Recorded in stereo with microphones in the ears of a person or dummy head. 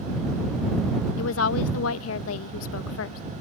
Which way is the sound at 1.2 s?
90° left.